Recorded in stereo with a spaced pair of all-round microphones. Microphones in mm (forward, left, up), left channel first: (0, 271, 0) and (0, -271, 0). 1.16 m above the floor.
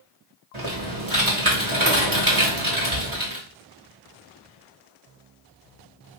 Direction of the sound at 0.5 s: 60° right (ahead or behind).